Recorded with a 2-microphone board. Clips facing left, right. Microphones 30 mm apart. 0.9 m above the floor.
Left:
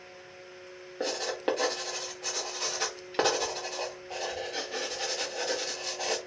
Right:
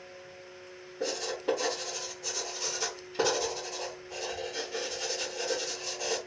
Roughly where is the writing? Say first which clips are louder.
Left 1 dB; left.